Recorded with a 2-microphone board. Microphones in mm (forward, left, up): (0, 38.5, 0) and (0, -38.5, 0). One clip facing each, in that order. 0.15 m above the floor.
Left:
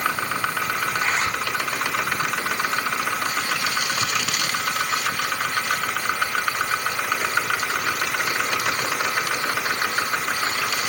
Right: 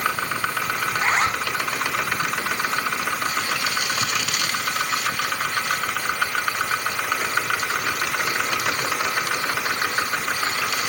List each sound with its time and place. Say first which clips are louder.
0.9 s a zipper: right 6 dB; 35° right (ahead or behind), 3.5 m